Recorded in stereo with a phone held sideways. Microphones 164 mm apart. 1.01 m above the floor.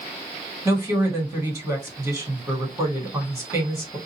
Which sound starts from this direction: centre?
A woman speaking, at 0.7 s.